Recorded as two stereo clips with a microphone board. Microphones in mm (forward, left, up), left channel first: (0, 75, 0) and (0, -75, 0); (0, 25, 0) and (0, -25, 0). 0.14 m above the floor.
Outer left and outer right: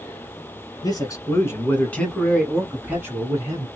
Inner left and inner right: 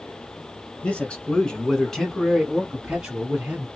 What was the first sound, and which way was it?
A man speaking, 30° left (ahead or behind).